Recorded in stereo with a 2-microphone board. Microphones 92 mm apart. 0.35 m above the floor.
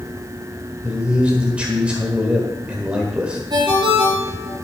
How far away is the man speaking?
About 1.4 m.